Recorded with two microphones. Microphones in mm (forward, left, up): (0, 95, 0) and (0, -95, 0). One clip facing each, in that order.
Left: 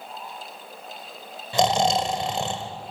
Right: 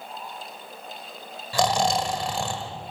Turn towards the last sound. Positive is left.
turn(degrees=20)  # may be behind; listen again after turning